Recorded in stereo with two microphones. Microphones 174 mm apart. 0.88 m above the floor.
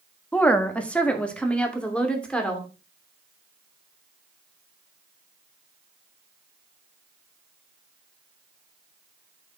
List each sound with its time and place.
0.3 s a woman speaking: 10° left (ahead or behind), 1.4 m; by 2.7 s 5° left (ahead or behind), 3 m